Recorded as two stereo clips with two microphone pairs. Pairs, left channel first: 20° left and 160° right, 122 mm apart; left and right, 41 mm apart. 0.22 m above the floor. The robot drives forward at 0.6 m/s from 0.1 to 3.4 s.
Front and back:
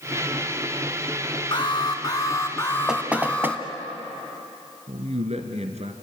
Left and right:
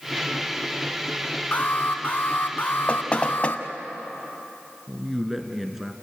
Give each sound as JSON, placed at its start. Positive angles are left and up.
{"t": 1.5, "sound": "an alarm", "azimuth_deg": 60, "distance_m": 2.0}
{"t": 2.9, "sound": "knocking", "azimuth_deg": 120, "distance_m": 1.2}
{"t": 4.9, "sound": "a man speaking", "azimuth_deg": -175, "distance_m": 2.5}